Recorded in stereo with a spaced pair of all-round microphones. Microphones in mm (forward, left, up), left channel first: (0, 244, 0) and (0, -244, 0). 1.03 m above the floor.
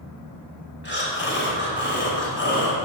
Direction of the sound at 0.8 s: 20° left (ahead or behind).